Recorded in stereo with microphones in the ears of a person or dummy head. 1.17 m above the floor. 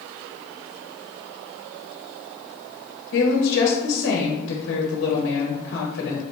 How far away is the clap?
No clap in this recording.